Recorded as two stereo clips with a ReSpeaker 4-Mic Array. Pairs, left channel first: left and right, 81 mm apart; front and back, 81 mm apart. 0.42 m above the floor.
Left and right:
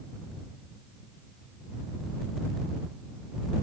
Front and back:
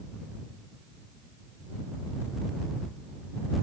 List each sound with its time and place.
Only background noise.